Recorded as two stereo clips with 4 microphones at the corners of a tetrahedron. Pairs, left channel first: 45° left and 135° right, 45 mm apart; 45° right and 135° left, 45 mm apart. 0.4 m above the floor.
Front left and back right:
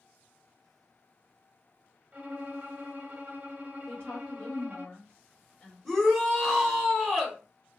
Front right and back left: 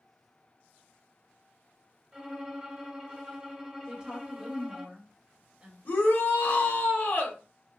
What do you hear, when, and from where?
2.1 s a violin: 150° right, 1.0 m
3.9 s a woman speaking: 85° left, 1.5 m
5.8 s a shout: 40° right, 1.2 m